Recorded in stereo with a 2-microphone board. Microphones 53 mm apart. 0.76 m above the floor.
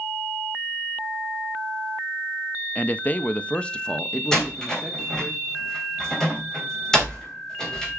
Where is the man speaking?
30° left (ahead or behind), 0.5 m; by 5.3 s 5° left (ahead or behind), 1.7 m.